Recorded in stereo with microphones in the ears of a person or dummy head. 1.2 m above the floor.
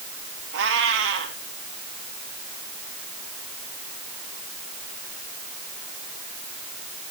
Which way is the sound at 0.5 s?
65° right (ahead or behind).